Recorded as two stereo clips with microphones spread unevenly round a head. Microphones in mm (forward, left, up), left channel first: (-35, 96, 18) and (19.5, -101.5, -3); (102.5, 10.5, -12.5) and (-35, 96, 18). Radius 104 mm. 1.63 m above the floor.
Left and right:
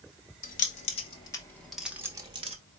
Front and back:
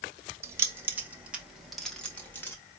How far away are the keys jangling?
About 1.1 m.